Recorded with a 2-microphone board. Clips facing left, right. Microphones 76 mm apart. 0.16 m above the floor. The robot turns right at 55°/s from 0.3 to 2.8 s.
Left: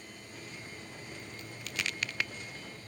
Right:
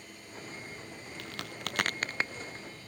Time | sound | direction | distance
1.2 | a crack | 85° right | ?